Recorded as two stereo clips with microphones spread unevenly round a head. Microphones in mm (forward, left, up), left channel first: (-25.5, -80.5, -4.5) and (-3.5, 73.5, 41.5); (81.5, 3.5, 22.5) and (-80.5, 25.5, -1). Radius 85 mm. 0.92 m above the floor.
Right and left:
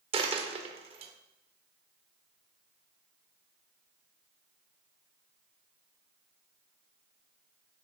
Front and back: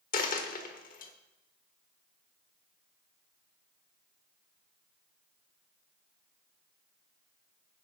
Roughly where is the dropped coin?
Ahead left.